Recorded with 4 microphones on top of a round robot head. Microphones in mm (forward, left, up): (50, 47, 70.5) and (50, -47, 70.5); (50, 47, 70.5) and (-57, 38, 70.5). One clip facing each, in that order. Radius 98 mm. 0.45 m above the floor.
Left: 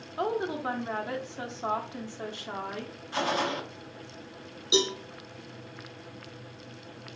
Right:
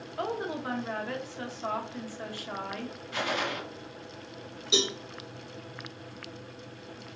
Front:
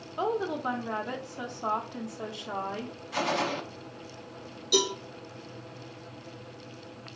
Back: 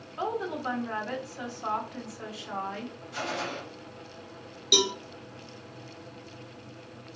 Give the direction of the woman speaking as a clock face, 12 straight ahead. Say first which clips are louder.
Left 3 dB, front 2 dB; 10 o'clock.